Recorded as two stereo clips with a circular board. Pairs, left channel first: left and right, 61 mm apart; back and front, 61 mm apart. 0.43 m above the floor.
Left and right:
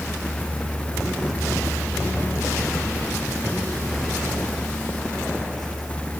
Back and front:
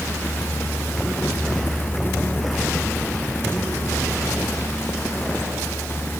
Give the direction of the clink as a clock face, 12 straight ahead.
I don't hear a clink.